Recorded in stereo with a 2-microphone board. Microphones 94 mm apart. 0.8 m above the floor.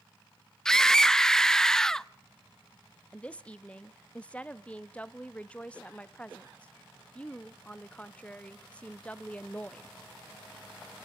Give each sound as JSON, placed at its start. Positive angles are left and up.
{"t": 0.7, "sound": "a scream", "side_deg": 5, "distance_m": 0.5}
{"t": 3.1, "sound": "a woman speaking", "side_deg": 15, "distance_m": 0.7}